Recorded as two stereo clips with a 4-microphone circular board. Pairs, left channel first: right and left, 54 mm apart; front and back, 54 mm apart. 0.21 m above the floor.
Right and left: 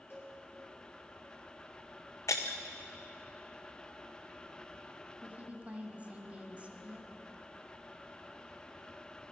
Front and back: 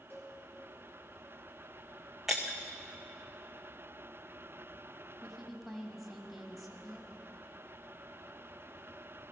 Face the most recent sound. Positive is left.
turn(degrees=90)